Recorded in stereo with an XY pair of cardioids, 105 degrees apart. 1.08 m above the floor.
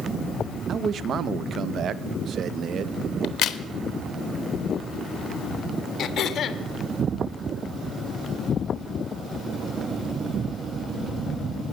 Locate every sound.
0.7 s a man speaking: 60° right, 0.7 m
3.2 s a crack: 65° left, 1.0 m
6.0 s throat clearing: 55° left, 1.2 m